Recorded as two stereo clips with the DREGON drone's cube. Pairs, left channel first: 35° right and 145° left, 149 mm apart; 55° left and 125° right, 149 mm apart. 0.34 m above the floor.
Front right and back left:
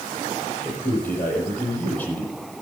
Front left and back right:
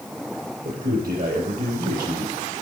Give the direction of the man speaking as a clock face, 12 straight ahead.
4 o'clock.